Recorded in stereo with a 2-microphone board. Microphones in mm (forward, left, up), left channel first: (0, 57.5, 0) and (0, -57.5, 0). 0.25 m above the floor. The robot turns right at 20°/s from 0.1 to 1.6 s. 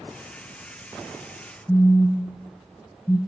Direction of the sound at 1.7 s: 15° left (ahead or behind).